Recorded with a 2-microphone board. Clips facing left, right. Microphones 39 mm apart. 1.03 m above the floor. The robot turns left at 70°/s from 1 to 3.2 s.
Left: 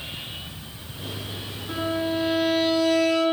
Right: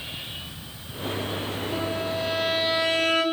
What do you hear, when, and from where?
1.7 s a violin: 50° left, 9 m; by 3.2 s 55° right, 9 m